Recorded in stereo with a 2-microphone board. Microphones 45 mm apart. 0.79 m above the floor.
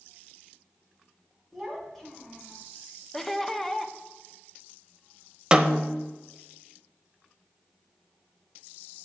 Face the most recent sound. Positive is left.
turn(degrees=-20)  # may be behind; listen again after turning